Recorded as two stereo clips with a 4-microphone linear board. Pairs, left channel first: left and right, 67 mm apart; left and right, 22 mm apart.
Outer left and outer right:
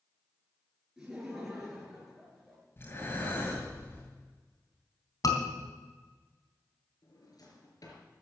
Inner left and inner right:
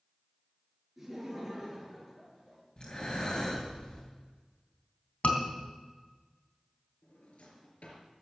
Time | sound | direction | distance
1.0 | laughter | 10° right (ahead or behind) | 7 m
2.8 | breathing | 35° left (ahead or behind) | 6.5 m
5.2 | a scream | 60° left (ahead or behind) | 3.5 m
7.0 | a drawer | 65° left (ahead or behind) | 4 m